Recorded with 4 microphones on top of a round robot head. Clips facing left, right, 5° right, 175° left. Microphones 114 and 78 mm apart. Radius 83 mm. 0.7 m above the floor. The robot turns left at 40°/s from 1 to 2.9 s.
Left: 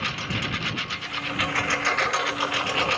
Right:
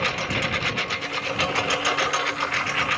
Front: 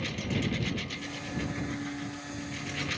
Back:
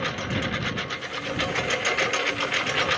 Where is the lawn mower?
130° right; by 3.0 s 150° left.